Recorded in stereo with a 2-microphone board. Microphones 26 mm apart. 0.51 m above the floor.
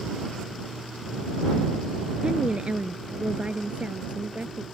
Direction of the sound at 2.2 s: 45° right (ahead or behind).